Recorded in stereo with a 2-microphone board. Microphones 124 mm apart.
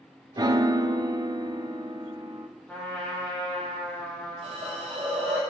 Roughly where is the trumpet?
Centre.